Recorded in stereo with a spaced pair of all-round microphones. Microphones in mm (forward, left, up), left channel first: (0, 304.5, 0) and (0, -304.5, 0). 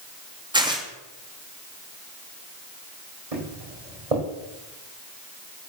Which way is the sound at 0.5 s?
5° right (ahead or behind).